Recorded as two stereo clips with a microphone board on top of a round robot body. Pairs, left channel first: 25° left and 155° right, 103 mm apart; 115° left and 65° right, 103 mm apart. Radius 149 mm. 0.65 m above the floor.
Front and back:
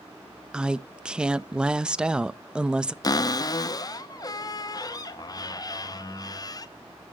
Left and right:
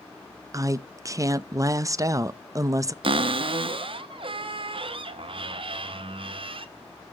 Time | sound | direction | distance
0.5 | a woman speaking | 85° right | 0.5 m
3.0 | a cupboard door | 30° right | 0.6 m